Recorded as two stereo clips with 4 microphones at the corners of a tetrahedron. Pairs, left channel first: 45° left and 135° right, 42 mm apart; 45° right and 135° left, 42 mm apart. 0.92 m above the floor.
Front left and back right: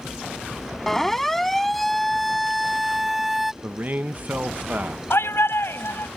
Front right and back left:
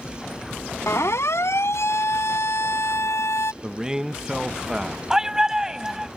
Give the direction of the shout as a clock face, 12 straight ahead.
10 o'clock.